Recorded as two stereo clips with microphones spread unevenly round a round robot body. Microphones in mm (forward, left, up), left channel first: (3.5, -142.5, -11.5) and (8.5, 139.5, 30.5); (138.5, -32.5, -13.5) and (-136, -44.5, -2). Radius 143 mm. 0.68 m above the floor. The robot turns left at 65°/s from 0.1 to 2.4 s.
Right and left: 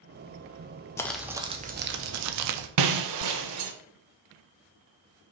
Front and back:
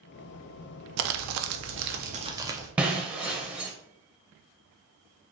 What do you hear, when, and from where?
1.0 s crumpling: 160° right, 0.5 m; by 2.7 s 105° left, 0.5 m
2.8 s breaking glass: 100° left, 0.7 m